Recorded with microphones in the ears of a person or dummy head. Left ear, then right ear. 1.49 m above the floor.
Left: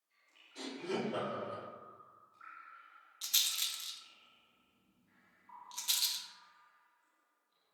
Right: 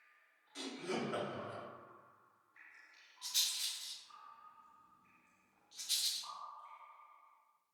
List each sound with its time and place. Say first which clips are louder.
0.6 s laughter: left 2 dB; 65° right (ahead or behind), 1.8 m
3.2 s a rattle: left 3 dB; 60° left (ahead or behind), 0.7 m